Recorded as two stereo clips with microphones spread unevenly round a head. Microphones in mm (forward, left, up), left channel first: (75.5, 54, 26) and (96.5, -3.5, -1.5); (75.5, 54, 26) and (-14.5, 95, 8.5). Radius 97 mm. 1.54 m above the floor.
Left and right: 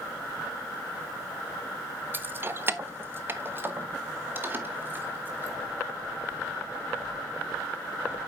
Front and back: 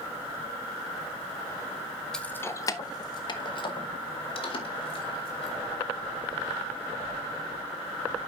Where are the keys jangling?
5° left, 0.7 m; by 5.6 s 5° right, 3 m.